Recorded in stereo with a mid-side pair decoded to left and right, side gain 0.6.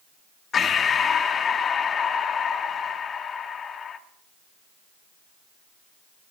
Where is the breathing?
40° left, 1.7 m.